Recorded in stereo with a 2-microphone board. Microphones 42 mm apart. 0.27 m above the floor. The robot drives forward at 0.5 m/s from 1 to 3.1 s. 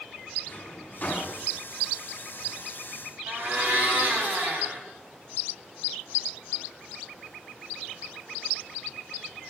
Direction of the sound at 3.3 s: 50° right (ahead or behind).